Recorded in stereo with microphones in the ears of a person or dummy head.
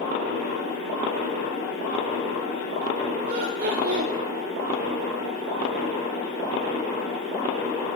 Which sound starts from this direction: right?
Laughter, at 3.3 s.